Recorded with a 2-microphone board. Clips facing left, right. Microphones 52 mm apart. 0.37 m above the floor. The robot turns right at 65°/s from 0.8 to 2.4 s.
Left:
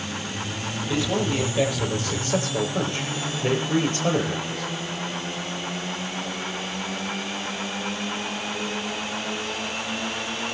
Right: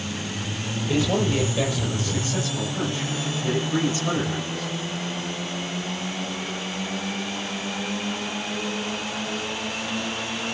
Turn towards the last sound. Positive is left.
turn(degrees=75)